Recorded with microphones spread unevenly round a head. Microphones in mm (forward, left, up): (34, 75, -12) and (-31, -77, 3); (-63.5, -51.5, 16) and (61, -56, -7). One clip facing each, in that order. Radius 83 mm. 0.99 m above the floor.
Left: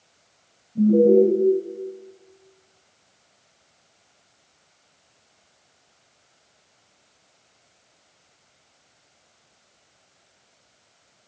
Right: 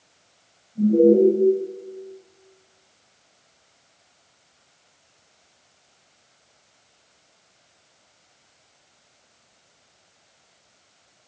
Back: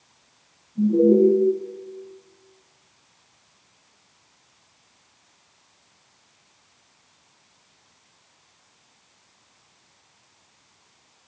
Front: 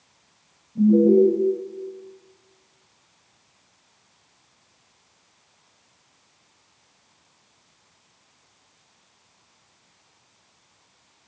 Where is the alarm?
35° left, 7.5 m.